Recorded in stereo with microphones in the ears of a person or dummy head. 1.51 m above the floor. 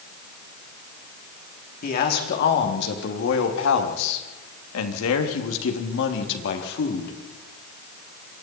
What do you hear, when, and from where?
1.8 s a man speaking: 40° left (ahead or behind), 3.5 m; by 7.1 s 60° left (ahead or behind), 3.5 m